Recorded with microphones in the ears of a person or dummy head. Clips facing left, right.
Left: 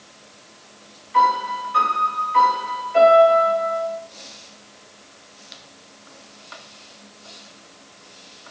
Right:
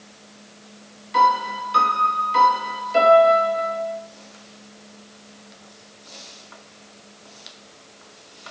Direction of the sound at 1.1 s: 50° right (ahead or behind).